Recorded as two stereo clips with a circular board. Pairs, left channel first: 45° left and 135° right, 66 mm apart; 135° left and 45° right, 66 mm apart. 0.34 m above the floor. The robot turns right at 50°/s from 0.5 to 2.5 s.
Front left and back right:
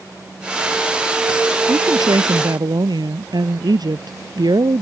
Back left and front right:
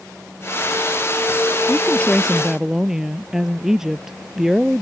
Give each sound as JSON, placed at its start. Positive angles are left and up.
{"t": 1.7, "sound": "a woman speaking", "azimuth_deg": -170}